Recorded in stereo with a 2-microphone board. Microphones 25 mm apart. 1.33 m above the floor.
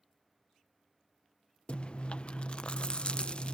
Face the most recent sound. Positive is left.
turn(degrees=40)  # may be behind; listen again after turning